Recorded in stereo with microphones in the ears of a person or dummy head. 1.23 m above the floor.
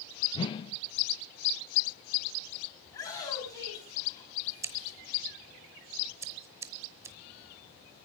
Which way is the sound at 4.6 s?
15° right (ahead or behind).